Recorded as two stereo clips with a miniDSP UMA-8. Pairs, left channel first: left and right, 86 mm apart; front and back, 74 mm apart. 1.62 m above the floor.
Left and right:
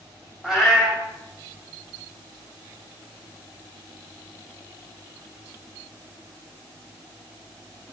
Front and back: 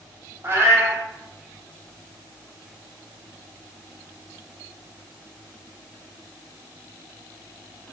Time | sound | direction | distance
0.4 | a cat meowing | 170° right | 1.6 m